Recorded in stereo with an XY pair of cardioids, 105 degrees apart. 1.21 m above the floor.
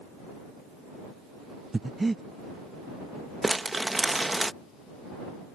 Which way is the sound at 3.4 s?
15° right.